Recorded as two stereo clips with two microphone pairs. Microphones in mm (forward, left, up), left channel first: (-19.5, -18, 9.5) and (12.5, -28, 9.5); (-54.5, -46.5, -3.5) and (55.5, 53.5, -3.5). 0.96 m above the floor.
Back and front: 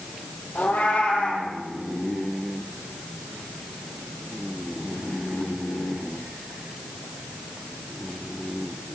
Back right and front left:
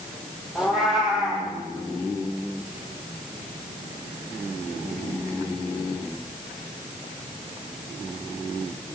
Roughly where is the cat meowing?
Behind left.